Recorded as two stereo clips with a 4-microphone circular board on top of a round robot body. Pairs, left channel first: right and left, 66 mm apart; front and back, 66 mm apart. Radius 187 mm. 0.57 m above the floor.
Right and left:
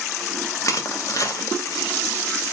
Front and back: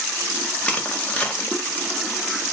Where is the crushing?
65° right, 0.9 m.